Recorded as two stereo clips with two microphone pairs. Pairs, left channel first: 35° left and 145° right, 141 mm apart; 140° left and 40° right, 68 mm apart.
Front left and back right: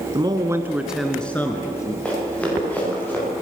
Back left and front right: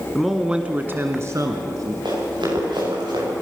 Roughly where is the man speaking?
Behind right.